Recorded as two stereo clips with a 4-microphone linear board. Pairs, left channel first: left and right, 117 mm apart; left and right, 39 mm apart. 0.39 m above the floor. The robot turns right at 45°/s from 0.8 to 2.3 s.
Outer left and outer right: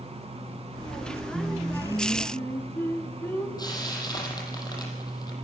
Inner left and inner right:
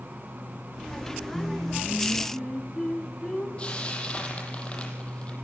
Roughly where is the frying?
Left.